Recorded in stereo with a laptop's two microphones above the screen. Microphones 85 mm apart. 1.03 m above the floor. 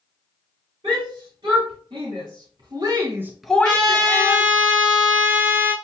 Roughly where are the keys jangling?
I don't hear keys jangling.